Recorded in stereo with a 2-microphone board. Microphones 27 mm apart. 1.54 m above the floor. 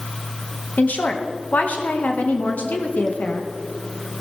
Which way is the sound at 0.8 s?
80° left.